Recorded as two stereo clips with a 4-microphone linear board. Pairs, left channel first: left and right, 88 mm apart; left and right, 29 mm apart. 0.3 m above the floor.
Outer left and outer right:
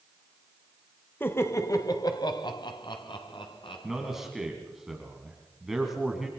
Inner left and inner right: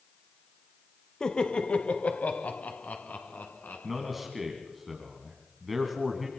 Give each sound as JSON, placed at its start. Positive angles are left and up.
{"t": 1.2, "sound": "laughter", "side_deg": 25, "distance_m": 1.4}
{"t": 3.8, "sound": "a man speaking", "side_deg": -5, "distance_m": 3.0}